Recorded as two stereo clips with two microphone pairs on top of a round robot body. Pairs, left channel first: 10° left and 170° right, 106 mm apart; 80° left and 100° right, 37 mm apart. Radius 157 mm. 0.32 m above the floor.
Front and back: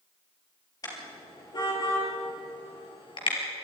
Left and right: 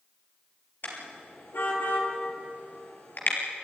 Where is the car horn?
65° left, 5.5 m; by 3.4 s 50° left, 5 m.